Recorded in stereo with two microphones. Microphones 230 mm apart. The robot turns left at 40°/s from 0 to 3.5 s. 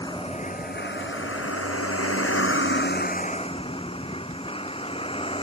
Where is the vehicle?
165° left; by 5.5 s 25° left.